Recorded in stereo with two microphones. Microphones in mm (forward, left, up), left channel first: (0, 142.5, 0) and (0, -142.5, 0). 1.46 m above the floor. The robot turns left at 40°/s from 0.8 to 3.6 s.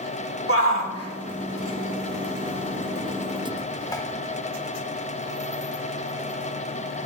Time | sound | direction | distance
0.5 | a shout | 55° left (ahead or behind) | 1.7 m